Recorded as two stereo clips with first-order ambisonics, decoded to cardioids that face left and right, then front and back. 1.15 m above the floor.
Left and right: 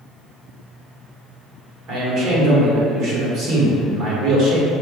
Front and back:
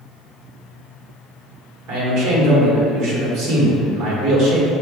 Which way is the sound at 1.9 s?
135° right.